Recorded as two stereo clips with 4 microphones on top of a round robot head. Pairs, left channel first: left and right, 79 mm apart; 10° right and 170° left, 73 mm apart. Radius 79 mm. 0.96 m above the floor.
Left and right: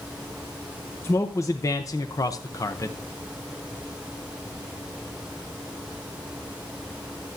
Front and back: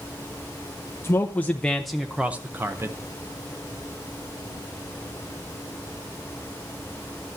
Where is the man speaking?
40° left, 1.0 m; by 3.0 s 130° left, 1.0 m.